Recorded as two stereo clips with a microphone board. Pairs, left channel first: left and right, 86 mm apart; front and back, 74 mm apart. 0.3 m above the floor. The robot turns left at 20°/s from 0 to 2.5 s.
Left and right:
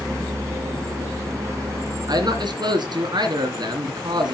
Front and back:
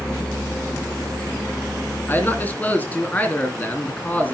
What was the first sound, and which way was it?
A man speaking, 55° right.